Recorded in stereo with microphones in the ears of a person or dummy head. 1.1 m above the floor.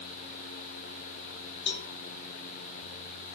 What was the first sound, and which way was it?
A cowbell, 60° left (ahead or behind).